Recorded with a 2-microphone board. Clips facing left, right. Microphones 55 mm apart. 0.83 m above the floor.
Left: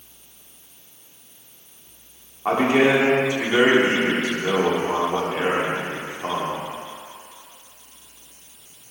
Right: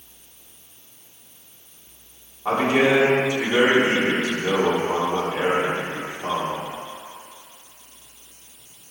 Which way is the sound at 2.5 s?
30° left (ahead or behind).